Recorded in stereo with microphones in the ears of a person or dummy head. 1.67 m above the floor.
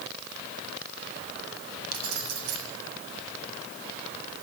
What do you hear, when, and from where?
1.9 s keys jangling: 85° right, 8 m